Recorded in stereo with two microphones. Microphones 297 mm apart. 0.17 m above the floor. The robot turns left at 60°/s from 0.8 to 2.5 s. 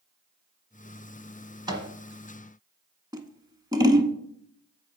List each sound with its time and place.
1.7 s a microwave: 15° right (ahead or behind), 1.1 m; by 1.9 s 20° right (ahead or behind), 1.1 m
3.1 s scissors: 15° right (ahead or behind), 0.7 m